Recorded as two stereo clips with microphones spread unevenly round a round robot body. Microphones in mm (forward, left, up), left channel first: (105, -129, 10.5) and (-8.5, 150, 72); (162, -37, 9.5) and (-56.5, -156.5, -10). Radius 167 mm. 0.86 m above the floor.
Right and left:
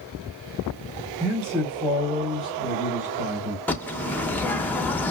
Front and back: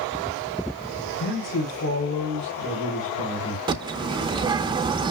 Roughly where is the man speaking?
Ahead.